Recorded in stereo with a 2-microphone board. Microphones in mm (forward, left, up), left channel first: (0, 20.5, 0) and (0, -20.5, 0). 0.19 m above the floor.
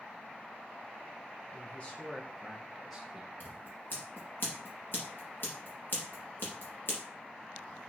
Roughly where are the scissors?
Left.